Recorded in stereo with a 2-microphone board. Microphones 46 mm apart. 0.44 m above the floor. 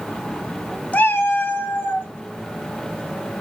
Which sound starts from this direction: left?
A cat meowing, at 0.9 s.